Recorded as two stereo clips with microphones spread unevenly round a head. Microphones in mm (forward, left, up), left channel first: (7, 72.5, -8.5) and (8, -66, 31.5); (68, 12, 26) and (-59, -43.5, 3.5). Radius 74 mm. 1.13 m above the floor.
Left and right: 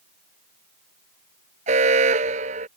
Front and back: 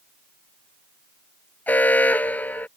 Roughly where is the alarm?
Ahead right.